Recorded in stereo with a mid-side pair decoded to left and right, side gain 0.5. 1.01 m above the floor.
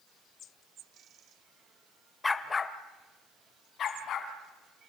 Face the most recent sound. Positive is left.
turn(degrees=55)